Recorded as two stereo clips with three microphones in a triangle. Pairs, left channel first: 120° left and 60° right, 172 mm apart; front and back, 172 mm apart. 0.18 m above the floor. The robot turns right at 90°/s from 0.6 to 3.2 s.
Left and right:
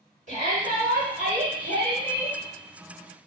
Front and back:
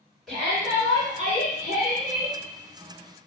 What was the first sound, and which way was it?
A shout, 90° right.